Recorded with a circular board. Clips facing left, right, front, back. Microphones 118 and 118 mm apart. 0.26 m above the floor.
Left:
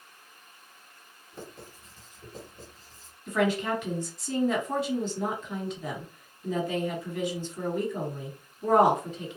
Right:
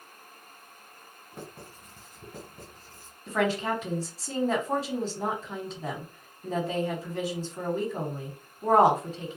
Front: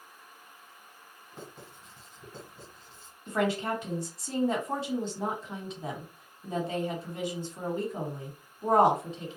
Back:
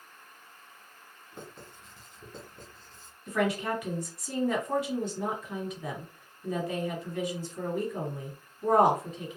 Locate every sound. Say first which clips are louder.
1.3 s writing: even, even; 90° right, 2 m
3.3 s a woman speaking: left 1 dB, even; 50° right, 1.5 m